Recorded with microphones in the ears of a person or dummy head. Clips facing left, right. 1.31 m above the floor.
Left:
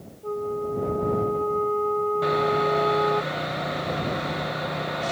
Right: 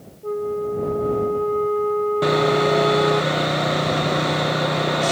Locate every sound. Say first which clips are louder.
0.2 s a flute: right 4 dB; 20° right (ahead or behind)
2.2 s sawing: right 6 dB; 65° right (ahead or behind)